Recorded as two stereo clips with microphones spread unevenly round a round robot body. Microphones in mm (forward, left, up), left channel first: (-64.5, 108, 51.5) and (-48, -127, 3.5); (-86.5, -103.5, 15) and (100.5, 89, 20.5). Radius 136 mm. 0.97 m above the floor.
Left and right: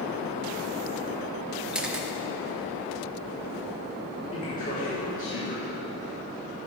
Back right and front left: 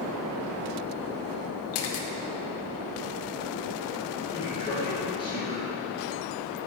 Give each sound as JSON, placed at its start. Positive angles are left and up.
{"t": 1.7, "sound": "a camera shutter", "azimuth_deg": -170, "distance_m": 1.1}
{"t": 4.3, "sound": "a man speaking", "azimuth_deg": 155, "distance_m": 4.0}